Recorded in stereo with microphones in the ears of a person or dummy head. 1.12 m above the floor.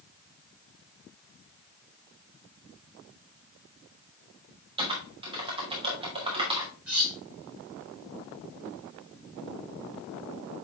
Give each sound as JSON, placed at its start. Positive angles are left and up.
{"t": 4.8, "sound": "typing on a keyboard", "side_deg": -25, "distance_m": 2.5}
{"t": 6.9, "sound": "cutlery clinking", "side_deg": -5, "distance_m": 6.0}